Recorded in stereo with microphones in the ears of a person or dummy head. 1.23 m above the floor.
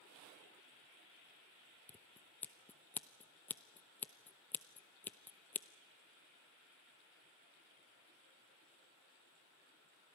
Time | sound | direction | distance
1.9 | scissors | 10° left (ahead or behind) | 0.5 m